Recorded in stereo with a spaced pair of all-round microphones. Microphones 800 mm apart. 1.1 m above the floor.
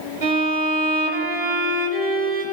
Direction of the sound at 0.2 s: 45° right (ahead or behind).